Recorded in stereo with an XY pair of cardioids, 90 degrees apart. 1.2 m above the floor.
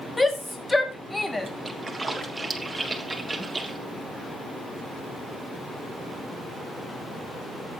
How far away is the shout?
About 2.5 m.